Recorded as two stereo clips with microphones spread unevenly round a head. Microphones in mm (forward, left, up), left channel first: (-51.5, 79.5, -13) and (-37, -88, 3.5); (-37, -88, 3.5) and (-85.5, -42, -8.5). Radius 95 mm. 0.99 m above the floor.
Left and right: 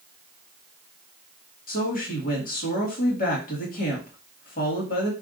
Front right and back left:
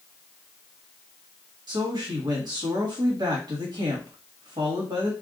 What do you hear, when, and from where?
1.7 s a woman speaking: 130° left, 1.3 m